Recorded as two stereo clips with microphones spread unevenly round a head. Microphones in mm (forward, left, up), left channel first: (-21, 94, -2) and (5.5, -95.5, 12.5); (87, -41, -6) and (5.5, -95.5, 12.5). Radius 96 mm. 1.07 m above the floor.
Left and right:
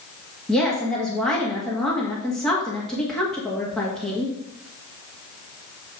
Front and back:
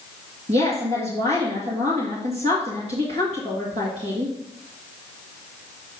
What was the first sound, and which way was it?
A woman speaking, 175° right.